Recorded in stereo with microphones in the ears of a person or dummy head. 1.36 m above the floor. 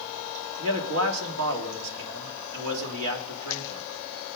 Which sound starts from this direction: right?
A man speaking, at 0.6 s.